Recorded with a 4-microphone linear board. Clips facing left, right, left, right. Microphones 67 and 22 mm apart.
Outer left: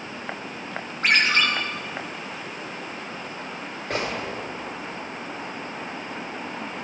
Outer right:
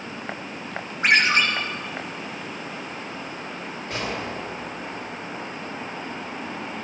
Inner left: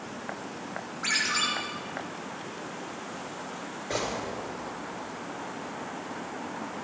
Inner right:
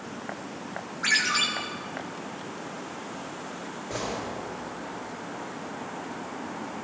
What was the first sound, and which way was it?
A ringtone, 10° right (ahead or behind).